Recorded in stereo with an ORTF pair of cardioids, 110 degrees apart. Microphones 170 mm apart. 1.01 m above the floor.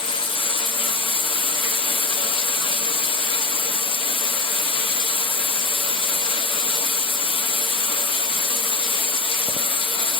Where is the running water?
30° left, 1.0 m.